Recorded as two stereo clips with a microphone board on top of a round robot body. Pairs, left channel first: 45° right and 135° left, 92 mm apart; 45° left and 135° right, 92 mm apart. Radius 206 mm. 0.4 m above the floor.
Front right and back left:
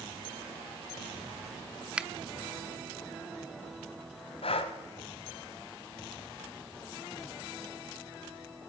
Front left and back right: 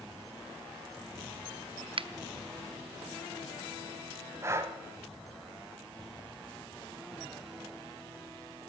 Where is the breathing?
70° right, 0.6 m.